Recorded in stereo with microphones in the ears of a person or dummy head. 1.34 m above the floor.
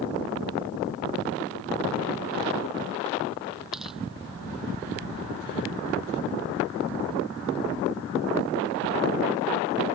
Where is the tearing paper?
Centre (ahead or behind).